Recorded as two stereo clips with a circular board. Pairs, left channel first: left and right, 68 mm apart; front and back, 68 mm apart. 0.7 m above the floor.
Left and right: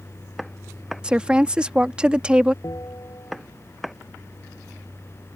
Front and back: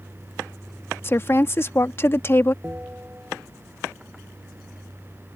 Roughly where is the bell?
Behind left.